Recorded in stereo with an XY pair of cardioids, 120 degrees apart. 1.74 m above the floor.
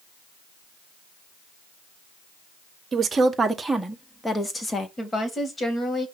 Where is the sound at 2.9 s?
35° right, 1.4 m; by 4.9 s 25° left, 1.7 m.